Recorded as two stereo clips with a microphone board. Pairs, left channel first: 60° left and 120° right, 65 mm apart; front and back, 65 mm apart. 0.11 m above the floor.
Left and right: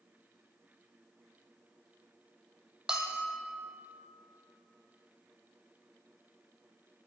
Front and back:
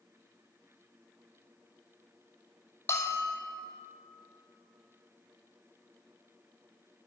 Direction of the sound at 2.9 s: 45° right.